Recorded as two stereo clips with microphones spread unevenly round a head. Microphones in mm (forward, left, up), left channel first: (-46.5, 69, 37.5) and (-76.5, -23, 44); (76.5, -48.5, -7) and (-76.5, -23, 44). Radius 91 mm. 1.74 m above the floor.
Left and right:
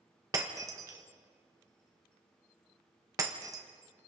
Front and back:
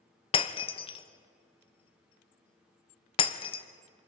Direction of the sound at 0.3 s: 70° right.